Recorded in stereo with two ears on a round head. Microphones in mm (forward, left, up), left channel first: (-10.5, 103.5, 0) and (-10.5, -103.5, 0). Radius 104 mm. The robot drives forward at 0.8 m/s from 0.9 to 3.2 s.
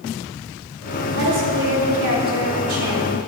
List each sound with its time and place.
1.1 s a woman speaking: 50° right (ahead or behind), 3.5 m; by 3.1 s 70° right (ahead or behind), 3 m